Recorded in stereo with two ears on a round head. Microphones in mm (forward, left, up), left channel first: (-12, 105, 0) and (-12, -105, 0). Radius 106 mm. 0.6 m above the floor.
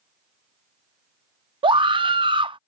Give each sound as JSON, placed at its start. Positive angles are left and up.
{"t": 1.6, "sound": "a scream", "side_deg": -20}